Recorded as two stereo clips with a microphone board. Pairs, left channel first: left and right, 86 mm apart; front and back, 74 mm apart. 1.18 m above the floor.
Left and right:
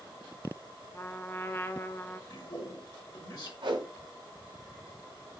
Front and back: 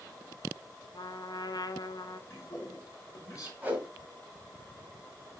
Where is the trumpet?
25° left, 1.0 m.